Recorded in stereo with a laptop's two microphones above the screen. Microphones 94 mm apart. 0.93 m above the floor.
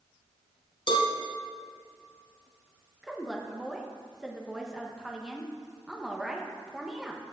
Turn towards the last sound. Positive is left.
turn(degrees=-5)  # may be behind; listen again after turning